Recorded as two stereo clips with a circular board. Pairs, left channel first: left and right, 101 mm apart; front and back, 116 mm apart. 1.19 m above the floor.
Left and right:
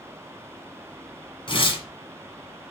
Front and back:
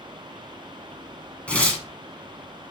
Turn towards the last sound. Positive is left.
turn(degrees=75)